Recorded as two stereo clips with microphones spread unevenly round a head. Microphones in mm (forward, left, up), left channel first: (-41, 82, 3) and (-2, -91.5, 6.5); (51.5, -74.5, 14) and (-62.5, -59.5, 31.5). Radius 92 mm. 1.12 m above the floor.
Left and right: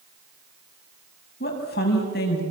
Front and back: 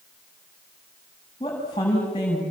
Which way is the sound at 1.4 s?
60° left.